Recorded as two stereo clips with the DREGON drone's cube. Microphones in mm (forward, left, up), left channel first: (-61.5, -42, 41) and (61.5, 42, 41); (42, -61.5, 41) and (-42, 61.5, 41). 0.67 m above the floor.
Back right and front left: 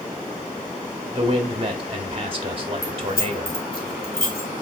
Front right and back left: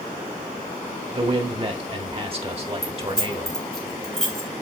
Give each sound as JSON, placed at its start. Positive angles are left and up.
{"t": 1.1, "sound": "a man speaking", "azimuth_deg": 80, "distance_m": 1.9}
{"t": 2.8, "sound": "keys jangling", "azimuth_deg": -145, "distance_m": 2.0}